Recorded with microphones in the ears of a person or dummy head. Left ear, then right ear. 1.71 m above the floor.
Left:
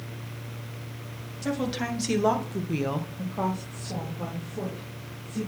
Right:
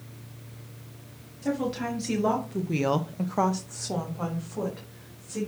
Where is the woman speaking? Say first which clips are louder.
Even; 25° left (ahead or behind), 2.5 m; by 5.5 s 40° right (ahead or behind), 3.5 m.